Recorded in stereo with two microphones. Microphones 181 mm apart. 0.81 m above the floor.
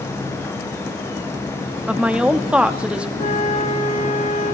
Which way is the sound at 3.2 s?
45° left (ahead or behind).